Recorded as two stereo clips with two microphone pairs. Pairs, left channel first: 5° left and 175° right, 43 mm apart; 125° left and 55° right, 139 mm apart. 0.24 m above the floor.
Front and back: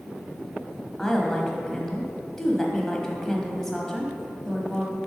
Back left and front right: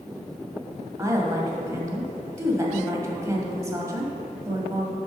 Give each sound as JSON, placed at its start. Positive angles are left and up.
{"t": 1.0, "sound": "a woman speaking", "azimuth_deg": -60, "distance_m": 1.0}